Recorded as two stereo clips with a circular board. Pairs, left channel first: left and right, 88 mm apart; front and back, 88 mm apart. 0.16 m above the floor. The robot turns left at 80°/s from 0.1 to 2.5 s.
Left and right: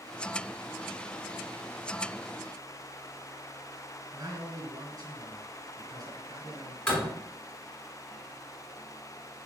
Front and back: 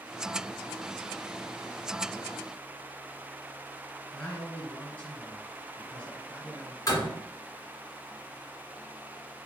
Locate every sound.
4.1 s a man speaking: 65° right, 2.5 m
6.9 s a door slam: 15° left, 1.5 m